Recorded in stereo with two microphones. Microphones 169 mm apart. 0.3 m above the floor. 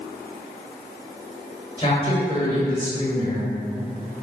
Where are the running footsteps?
No running footsteps in this recording.